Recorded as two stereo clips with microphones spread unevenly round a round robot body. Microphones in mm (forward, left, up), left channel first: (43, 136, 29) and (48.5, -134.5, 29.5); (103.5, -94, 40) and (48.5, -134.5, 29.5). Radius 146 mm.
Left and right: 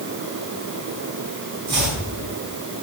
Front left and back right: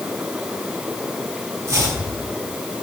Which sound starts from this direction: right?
Chopping, at 1.7 s.